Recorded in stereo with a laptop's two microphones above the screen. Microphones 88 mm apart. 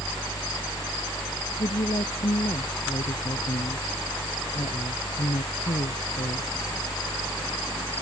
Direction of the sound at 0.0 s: 40° left (ahead or behind).